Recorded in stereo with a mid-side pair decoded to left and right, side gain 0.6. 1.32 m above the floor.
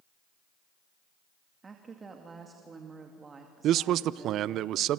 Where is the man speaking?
60° right, 0.6 m.